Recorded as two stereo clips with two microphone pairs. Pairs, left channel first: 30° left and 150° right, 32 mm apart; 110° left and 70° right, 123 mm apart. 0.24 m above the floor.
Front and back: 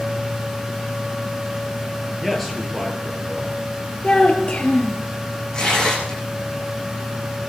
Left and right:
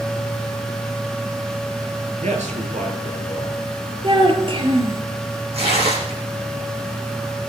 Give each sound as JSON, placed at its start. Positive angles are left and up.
{"t": 2.2, "sound": "a man speaking", "azimuth_deg": -60, "distance_m": 4.0}
{"t": 4.0, "sound": "a child speaking", "azimuth_deg": -25, "distance_m": 3.5}
{"t": 5.5, "sound": "tearing paper", "azimuth_deg": -40, "distance_m": 7.5}